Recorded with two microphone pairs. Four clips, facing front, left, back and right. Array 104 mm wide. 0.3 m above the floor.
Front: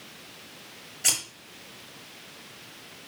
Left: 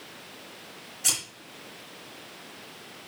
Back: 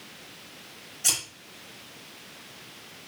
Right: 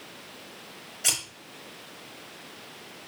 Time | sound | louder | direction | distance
1.0 | scissors | right 2 dB, front 1 dB | 40° right | 4 m